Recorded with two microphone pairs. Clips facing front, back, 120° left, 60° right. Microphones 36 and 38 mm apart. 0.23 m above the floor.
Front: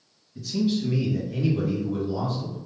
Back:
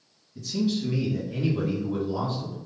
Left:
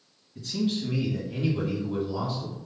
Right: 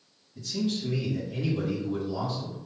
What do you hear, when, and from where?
0.3 s a man speaking: 65° left, 1.8 m; by 2.6 s straight behind, 1.9 m